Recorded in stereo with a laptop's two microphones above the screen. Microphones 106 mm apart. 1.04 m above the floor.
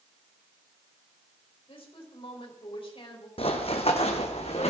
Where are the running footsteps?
65° left (ahead or behind), 2 m; by 4.7 s 70° left (ahead or behind), 3 m.